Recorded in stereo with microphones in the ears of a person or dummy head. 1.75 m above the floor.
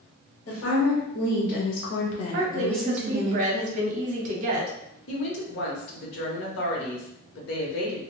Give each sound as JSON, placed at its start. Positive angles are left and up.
{"t": 0.5, "sound": "a woman speaking", "side_deg": 75, "distance_m": 1.2}
{"t": 2.3, "sound": "a woman speaking", "side_deg": -45, "distance_m": 0.7}
{"t": 5.1, "sound": "a woman speaking", "side_deg": 65, "distance_m": 1.0}